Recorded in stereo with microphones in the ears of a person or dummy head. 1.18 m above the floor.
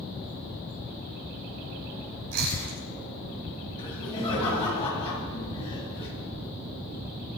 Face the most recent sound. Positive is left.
turn(degrees=30)  # may be behind; listen again after turning